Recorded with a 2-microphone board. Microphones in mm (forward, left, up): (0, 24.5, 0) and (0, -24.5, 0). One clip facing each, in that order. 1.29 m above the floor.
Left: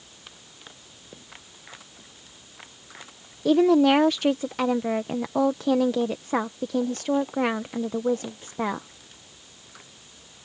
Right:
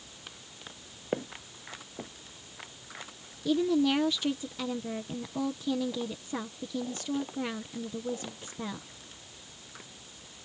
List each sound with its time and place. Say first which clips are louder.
1.1 s footsteps: right 14 dB; 60° right (ahead or behind)
3.5 s a woman speaking: left 8 dB; 70° left (ahead or behind)